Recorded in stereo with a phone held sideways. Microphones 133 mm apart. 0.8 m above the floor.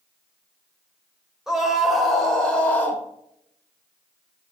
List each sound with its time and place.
1.5 s a scream: 5° right (ahead or behind), 3.5 m; by 3.0 s 10° left (ahead or behind), 3 m